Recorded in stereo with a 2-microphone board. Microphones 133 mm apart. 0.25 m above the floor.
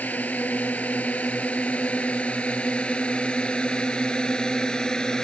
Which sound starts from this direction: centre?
A drone, at 0.0 s.